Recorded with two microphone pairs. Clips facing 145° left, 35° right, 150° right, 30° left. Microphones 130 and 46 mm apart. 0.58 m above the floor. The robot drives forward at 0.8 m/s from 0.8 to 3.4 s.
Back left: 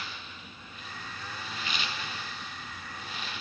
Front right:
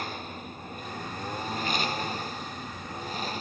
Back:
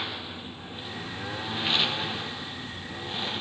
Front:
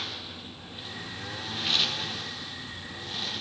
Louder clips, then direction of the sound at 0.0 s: Front right 8 dB, back 3 dB; 80° right.